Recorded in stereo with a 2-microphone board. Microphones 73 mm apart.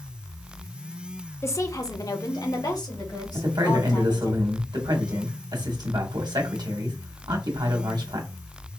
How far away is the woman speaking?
About 0.6 m.